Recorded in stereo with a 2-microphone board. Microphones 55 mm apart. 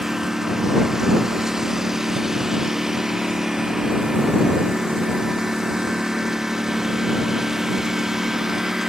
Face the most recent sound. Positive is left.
turn(degrees=-5)  # may be behind; listen again after turning